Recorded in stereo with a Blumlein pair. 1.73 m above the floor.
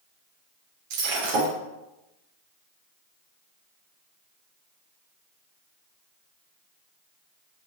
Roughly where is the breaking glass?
Ahead right.